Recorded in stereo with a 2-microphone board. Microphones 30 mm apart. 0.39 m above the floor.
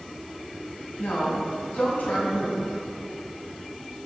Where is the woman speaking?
70° left (ahead or behind), 2.5 m.